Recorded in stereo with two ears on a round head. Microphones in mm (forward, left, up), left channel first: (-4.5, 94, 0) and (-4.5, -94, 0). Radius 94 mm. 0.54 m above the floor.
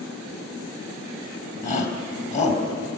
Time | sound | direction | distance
1.6 | a shout | 35° left (ahead or behind) | 3.5 m